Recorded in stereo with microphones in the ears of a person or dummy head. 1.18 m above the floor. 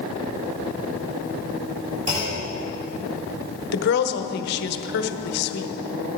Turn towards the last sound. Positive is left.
turn(degrees=55)  # may be behind; listen again after turning